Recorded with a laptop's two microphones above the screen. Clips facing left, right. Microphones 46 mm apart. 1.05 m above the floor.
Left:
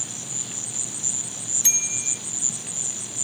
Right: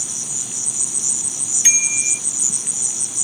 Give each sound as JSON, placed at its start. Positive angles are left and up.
{"t": 0.0, "sound": "an insect", "side_deg": -80}
{"t": 1.6, "sound": "a bicycle bell", "side_deg": -55}